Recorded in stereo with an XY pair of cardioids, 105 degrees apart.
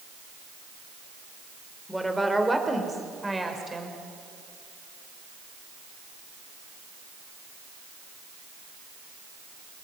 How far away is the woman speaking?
About 4.5 m.